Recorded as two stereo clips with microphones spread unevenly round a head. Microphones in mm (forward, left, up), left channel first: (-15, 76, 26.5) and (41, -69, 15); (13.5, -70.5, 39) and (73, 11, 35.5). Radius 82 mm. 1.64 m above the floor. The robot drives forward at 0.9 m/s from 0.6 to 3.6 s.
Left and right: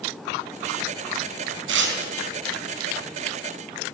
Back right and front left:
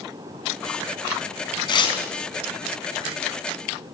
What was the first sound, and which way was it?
Tearing paper, 85° right.